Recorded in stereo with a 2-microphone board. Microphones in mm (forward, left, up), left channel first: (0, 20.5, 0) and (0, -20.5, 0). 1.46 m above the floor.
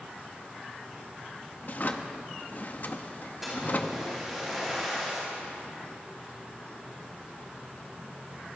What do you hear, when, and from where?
1.6 s a drawer: 45° left (ahead or behind), 1.1 m
3.4 s a splash: 5° right (ahead or behind), 9.5 m